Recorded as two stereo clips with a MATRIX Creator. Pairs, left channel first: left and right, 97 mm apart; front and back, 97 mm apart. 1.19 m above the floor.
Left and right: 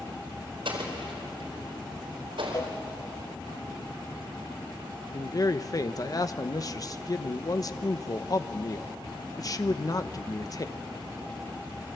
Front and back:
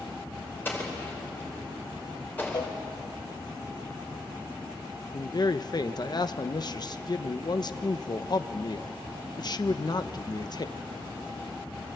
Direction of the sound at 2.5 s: 40° left.